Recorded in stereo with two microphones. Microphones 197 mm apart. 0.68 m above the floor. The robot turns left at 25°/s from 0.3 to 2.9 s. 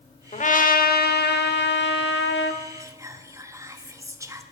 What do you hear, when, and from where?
0.3 s a trumpet: 140° left, 0.8 m; by 2.6 s 80° left, 0.8 m
2.8 s whispering: 15° right (ahead or behind), 0.9 m